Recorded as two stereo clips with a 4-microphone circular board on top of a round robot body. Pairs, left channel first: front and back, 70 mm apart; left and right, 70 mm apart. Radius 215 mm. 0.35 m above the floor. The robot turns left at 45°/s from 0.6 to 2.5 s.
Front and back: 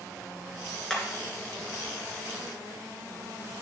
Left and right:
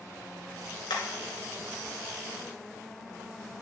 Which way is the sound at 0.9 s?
85° left.